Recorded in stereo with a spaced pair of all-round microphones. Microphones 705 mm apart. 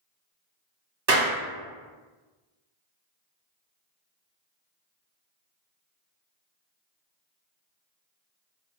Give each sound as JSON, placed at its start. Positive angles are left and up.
{"t": 1.1, "sound": "a clap", "side_deg": -60, "distance_m": 1.1}